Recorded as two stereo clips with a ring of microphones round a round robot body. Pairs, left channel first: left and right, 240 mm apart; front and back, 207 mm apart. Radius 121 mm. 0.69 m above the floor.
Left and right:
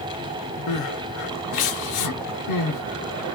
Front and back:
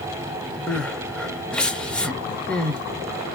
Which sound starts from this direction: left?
Crying, at 0.7 s.